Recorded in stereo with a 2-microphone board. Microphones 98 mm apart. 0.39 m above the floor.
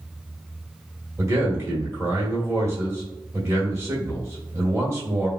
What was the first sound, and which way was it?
A man speaking, 25° right (ahead or behind).